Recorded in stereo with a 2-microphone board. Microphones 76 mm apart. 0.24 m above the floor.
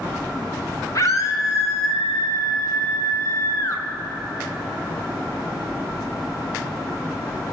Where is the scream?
45° left (ahead or behind), 2.5 m; by 3.9 s 40° left (ahead or behind), 4 m.